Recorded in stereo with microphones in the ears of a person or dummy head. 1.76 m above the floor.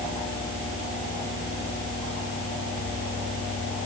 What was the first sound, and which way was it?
Only background noise.